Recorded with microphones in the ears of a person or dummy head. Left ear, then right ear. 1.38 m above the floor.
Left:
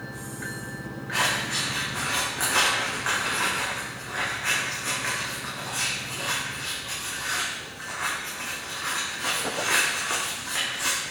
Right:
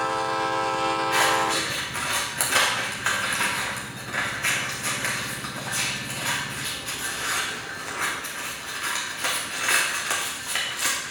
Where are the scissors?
25° right (ahead or behind), 1.6 m.